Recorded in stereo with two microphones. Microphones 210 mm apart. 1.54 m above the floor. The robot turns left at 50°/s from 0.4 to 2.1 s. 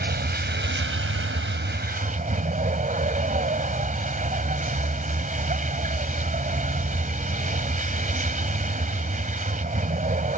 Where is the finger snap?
I don't hear a finger snap.